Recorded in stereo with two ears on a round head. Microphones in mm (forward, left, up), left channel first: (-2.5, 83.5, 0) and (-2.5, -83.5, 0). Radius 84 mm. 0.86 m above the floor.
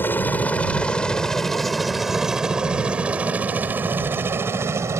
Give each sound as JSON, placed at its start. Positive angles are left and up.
{"t": 0.0, "sound": "a helicopter", "side_deg": 10}